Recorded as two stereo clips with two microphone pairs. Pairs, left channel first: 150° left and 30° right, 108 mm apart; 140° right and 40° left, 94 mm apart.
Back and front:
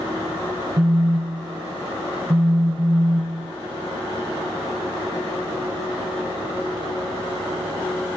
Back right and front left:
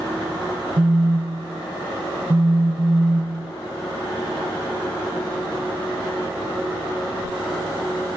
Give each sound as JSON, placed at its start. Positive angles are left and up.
{"t": 0.8, "sound": "a phone buzzing", "azimuth_deg": 10, "distance_m": 0.9}